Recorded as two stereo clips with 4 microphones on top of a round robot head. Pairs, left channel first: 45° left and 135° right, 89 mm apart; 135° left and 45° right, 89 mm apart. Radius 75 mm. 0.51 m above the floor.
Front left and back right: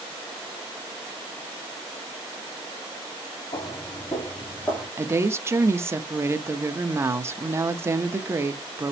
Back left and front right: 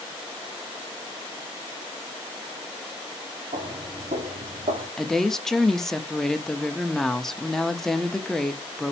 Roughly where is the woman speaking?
Behind right.